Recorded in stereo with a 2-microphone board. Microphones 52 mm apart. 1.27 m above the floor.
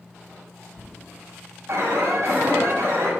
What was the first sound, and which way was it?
An alarm, 60° right (ahead or behind).